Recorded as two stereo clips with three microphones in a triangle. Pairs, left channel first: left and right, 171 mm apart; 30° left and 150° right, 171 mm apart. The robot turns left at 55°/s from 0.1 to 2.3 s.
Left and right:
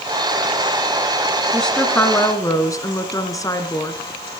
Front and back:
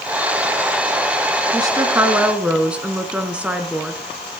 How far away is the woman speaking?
About 1.3 m.